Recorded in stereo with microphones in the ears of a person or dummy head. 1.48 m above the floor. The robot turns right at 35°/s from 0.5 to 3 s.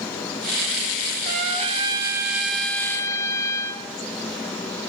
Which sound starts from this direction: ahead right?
A trumpet, at 1.2 s.